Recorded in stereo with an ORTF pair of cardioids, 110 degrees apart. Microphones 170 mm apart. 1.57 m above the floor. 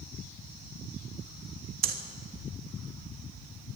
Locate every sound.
1.8 s breathing: 60° right, 2.5 m